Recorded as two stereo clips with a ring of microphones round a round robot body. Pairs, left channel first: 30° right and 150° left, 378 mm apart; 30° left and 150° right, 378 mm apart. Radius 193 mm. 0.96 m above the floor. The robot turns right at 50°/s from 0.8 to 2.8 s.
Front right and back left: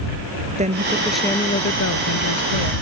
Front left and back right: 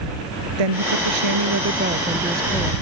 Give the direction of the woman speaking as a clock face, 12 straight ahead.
5 o'clock.